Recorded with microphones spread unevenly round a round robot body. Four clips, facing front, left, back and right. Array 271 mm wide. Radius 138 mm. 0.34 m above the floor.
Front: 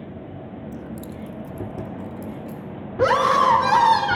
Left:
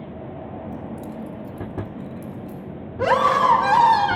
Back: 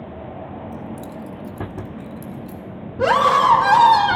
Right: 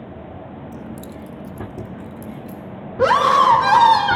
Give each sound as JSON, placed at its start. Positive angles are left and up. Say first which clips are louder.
{"t": 0.7, "sound": "keys jangling", "louder": "left 1 dB, back 2 dB", "azimuth_deg": -55, "distance_m": 0.6}
{"t": 3.0, "sound": "a scream", "louder": "right 4 dB, back 2 dB", "azimuth_deg": -75, "distance_m": 1.3}